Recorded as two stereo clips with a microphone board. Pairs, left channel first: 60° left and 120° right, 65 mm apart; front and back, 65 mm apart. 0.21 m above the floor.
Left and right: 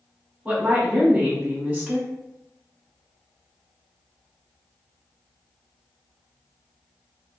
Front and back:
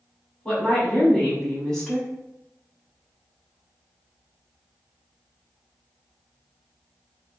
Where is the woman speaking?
75° right, 1.7 m.